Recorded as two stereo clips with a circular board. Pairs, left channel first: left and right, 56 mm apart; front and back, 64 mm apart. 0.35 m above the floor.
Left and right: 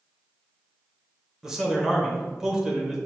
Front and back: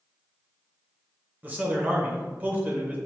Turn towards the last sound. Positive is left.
turn(degrees=-155)